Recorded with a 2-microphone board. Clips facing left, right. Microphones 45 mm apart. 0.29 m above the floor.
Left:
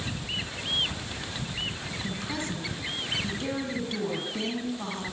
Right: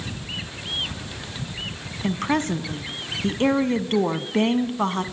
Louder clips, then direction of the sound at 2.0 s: Right 12 dB; 55° right (ahead or behind).